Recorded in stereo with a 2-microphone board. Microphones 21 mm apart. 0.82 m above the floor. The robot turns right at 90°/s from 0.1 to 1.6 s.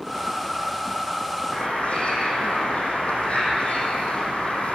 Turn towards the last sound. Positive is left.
turn(degrees=85)